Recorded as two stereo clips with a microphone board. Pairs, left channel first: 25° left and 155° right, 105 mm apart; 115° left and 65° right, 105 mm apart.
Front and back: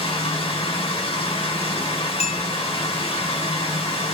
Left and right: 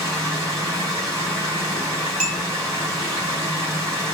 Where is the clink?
15° left, 2.5 m.